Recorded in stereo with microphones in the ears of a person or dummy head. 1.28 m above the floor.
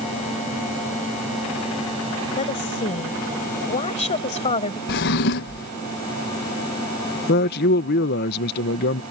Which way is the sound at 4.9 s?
55° left (ahead or behind).